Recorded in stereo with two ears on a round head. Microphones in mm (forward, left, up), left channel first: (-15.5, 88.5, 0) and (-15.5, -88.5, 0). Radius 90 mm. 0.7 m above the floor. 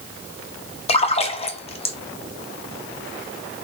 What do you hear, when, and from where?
0.9 s a splash: 30° left (ahead or behind), 0.7 m